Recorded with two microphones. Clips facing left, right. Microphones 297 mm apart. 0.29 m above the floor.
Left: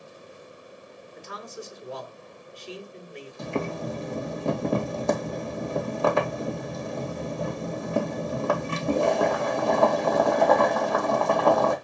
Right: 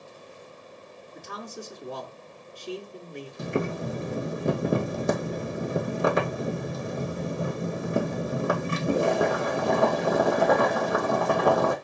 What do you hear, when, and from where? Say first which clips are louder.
1.1 s a man speaking: even; 50° right (ahead or behind), 3.5 m
3.4 s boiling: right 1 dB; 20° right (ahead or behind), 2.5 m